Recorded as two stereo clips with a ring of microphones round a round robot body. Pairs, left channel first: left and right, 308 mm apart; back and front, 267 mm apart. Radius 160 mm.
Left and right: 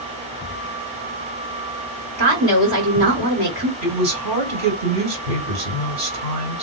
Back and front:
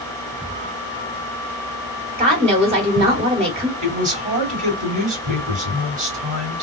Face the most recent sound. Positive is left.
turn(degrees=-60)